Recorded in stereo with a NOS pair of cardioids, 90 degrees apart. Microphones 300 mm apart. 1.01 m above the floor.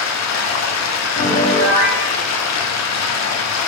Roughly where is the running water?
Ahead left.